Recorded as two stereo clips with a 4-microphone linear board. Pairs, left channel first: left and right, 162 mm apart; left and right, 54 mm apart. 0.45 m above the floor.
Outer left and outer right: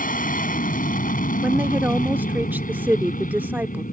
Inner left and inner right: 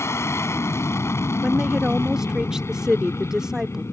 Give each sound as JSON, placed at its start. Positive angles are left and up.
{"t": 0.0, "sound": "an aircraft", "side_deg": 55}
{"t": 1.4, "sound": "a woman speaking", "side_deg": -10}